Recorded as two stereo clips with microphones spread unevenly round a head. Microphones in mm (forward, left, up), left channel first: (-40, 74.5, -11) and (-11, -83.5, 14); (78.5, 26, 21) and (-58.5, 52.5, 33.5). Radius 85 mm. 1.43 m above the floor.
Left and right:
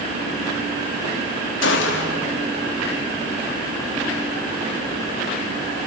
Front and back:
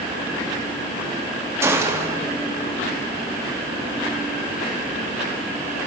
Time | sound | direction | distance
1.6 | a gunshot | 100° left | 3.5 m